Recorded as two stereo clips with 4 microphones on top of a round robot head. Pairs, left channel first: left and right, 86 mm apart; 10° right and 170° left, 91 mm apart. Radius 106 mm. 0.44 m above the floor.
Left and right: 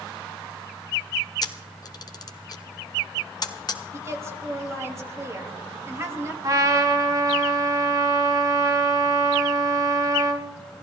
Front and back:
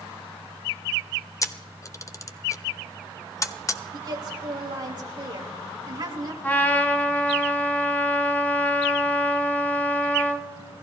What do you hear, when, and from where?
1.4 s a camera shutter: 45° left, 0.8 m
3.9 s a woman speaking: 145° right, 2.5 m
6.4 s a trumpet: 70° right, 1.5 m